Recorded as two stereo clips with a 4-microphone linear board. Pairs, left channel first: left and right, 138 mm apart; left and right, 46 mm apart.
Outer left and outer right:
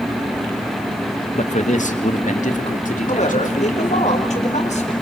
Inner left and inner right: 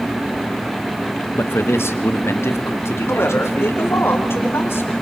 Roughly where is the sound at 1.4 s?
Left.